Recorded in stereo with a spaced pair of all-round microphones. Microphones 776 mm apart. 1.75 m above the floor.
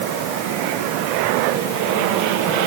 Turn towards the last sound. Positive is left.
No sound to turn to.